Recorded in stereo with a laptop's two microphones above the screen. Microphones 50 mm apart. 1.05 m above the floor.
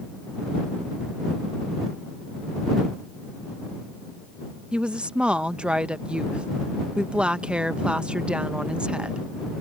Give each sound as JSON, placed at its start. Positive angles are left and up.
{"t": 4.7, "sound": "a woman speaking", "side_deg": -20}